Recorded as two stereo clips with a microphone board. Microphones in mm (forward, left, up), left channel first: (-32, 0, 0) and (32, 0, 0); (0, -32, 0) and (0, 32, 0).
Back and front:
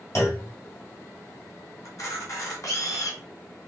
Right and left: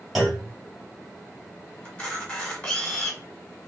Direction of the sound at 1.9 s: 160° right.